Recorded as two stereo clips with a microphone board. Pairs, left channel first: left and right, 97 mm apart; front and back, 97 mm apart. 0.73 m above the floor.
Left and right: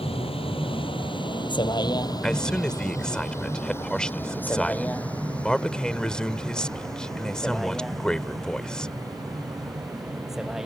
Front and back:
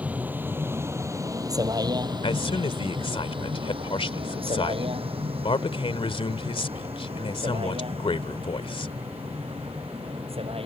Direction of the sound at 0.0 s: 105° left.